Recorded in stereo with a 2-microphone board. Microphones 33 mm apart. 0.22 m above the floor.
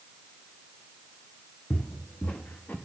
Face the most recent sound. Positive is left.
turn(degrees=75)  # may be behind; listen again after turning